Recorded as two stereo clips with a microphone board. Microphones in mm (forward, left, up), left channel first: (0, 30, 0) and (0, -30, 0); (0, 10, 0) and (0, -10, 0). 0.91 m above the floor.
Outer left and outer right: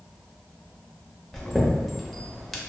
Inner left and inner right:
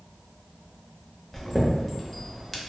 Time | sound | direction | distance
1.3 | a chime | centre (ahead or behind) | 0.5 m